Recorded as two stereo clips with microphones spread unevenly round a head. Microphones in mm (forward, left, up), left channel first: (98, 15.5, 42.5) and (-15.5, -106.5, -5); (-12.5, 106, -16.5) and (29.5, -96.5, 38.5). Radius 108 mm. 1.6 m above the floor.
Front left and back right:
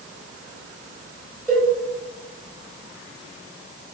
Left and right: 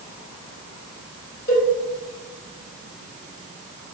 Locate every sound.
1.5 s a cowbell: 105° left, 1.3 m